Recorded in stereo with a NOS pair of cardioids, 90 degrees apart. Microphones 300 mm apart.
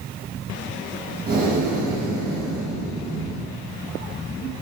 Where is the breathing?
30° right, 1.5 m.